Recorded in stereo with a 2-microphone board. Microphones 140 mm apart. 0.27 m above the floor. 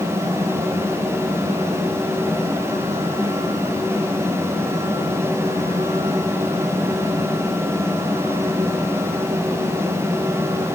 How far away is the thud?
I don't hear a thud.